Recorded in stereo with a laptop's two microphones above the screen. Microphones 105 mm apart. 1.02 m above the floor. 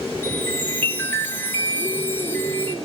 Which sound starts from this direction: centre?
A chime, at 0.2 s.